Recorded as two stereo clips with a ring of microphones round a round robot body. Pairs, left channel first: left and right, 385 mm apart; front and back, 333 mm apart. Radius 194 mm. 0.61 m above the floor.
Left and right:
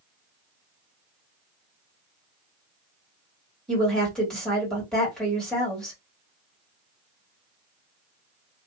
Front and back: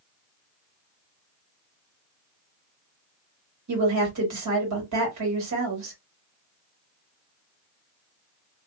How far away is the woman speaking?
About 1.6 m.